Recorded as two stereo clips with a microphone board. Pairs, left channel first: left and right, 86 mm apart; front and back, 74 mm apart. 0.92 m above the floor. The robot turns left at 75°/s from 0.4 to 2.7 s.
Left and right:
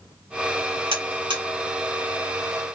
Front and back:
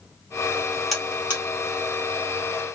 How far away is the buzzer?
About 1.5 m.